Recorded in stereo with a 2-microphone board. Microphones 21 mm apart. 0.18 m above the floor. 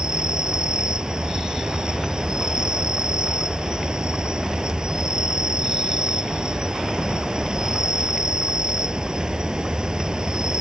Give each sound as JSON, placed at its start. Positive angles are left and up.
{"t": 0.0, "sound": "an insect", "side_deg": -40}